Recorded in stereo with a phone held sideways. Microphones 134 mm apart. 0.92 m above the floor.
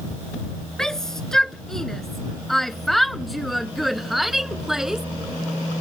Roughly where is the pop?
No pop in this recording.